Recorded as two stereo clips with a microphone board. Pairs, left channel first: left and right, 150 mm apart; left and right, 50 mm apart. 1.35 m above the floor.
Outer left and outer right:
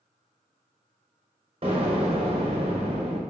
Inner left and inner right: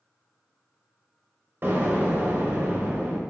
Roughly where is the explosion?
Right.